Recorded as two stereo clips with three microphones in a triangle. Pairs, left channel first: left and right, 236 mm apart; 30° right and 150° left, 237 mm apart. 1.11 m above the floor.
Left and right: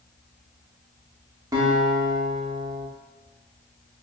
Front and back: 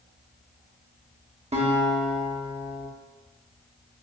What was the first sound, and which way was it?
A guitar, 160° right.